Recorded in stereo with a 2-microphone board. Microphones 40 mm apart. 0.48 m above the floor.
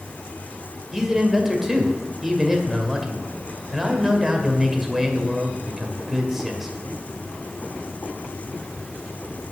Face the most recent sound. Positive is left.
turn(degrees=-10)  # may be behind; listen again after turning